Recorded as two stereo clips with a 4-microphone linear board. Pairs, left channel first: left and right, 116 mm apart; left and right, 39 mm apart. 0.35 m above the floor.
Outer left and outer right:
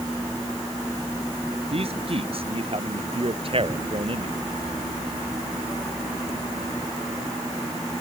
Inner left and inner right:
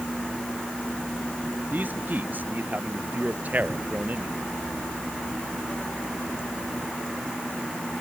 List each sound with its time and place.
1.7 s a man speaking: 50° right (ahead or behind); by 4.4 s 45° right (ahead or behind)